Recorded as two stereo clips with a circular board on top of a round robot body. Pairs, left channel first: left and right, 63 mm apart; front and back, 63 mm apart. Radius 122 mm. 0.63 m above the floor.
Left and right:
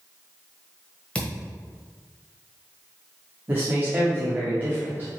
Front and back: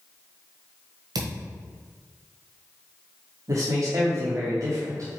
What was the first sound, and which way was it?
A thud, 165° left.